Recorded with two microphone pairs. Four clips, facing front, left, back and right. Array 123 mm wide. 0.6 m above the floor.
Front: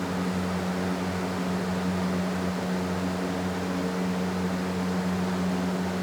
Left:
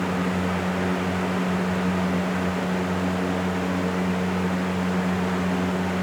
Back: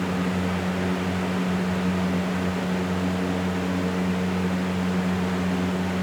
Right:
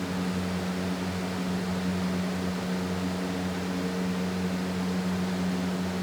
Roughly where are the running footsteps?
No running footsteps in this recording.